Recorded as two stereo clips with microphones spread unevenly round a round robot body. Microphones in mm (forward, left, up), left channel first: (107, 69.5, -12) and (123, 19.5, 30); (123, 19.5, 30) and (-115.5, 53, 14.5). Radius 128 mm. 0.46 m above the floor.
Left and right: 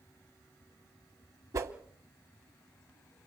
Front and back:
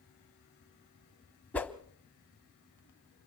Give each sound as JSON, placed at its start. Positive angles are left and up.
{"t": 1.5, "sound": "a whoosh", "azimuth_deg": -90, "distance_m": 0.7}